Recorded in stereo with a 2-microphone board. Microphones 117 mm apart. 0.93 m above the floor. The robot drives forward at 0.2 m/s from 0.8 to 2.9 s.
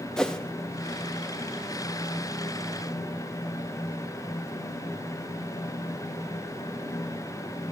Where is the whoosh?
5° left (ahead or behind), 1.0 m.